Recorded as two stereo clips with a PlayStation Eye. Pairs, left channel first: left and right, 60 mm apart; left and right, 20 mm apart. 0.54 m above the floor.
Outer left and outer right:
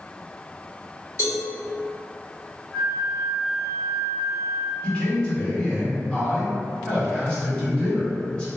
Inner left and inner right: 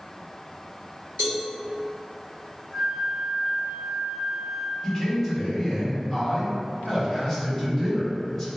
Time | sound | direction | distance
1.2 | a cowbell | 50° left (ahead or behind) | 1.5 m
2.7 | a flute | 15° left (ahead or behind) | 1.1 m
4.8 | a man speaking | 15° left (ahead or behind) | 1.2 m